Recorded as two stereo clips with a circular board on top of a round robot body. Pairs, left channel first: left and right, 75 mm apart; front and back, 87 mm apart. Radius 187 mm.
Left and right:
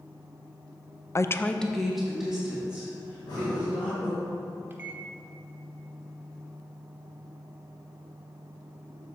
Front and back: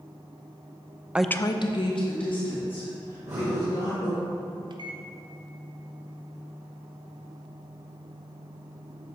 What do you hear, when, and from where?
1.1 s a woman speaking: 110° left, 0.5 m; by 4.1 s 10° right, 4 m
3.1 s breathing: 115° left, 1.3 m
4.7 s a microwave: 150° right, 0.7 m